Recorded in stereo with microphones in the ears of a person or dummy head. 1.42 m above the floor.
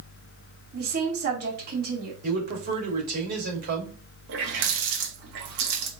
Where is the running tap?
60° right (ahead or behind), 1.5 m.